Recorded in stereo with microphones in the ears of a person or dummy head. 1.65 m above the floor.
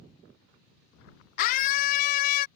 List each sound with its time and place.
1.4 s a scream: 45° left (ahead or behind)